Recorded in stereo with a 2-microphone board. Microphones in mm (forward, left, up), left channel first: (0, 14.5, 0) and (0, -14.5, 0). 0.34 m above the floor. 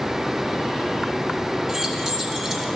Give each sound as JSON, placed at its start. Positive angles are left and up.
{"t": 1.7, "sound": "keys jangling", "side_deg": -25, "distance_m": 3.0}